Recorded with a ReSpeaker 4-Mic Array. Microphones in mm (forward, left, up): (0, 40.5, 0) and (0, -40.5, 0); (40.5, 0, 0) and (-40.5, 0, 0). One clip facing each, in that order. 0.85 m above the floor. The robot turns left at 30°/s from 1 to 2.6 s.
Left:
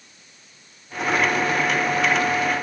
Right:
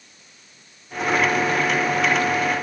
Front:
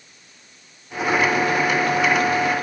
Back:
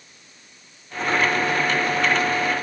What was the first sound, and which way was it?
Only background noise.